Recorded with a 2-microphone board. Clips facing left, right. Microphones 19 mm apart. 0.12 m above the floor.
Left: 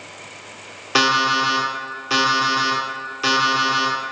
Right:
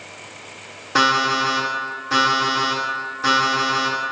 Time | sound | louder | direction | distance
0.9 | an alarm clock | even | 50° left (ahead or behind) | 1.4 m